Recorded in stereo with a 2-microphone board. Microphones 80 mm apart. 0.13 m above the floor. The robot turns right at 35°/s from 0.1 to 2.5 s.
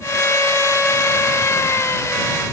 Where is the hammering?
No hammering in this recording.